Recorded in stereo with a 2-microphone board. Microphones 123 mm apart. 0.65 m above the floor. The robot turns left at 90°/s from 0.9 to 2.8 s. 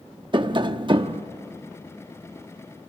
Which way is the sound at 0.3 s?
40° right (ahead or behind).